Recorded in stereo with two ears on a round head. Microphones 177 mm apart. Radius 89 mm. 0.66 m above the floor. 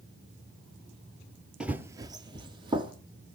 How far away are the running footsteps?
About 0.7 m.